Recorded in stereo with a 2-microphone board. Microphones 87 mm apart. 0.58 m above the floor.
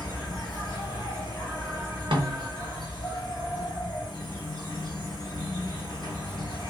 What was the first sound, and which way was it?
An insect, 55° left (ahead or behind).